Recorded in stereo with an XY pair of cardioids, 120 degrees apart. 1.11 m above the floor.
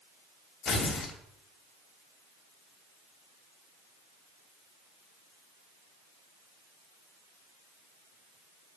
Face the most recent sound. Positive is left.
turn(degrees=60)